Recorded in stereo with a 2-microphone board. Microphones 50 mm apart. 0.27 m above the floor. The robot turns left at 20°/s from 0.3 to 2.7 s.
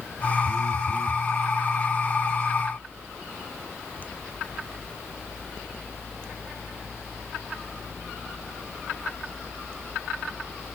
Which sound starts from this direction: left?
A phone buzzing, at 0.4 s.